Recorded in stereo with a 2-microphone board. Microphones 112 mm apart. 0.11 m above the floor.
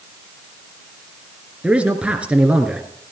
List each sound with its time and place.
1.6 s a man speaking: 10° right (ahead or behind), 1.5 m